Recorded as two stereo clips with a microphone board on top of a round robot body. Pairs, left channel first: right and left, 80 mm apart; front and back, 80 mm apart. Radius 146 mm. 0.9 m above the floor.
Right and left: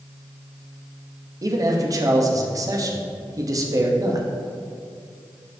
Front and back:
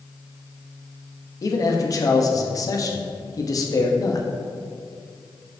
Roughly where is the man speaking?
Ahead left.